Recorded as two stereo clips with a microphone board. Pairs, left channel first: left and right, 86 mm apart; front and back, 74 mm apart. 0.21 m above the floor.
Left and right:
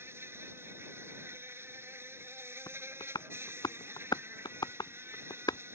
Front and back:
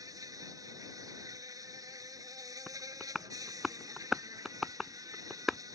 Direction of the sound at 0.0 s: 150° right.